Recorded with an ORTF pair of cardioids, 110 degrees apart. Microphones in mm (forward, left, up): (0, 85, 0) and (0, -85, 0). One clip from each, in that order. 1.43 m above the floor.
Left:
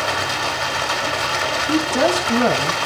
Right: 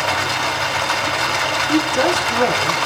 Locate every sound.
0.0 s running water: straight ahead, 2.5 m
1.7 s a woman speaking: 65° left, 6.5 m